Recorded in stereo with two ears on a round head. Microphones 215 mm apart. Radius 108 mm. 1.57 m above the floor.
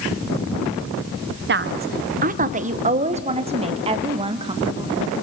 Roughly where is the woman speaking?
Right.